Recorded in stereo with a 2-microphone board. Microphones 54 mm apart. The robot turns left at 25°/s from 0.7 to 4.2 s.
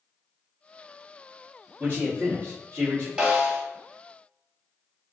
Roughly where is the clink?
I don't hear a clink.